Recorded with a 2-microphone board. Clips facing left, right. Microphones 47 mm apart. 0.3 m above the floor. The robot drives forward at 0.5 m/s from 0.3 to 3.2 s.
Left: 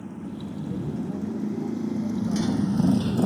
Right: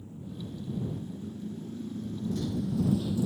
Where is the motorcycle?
85° left; by 3.2 s 70° left (ahead or behind).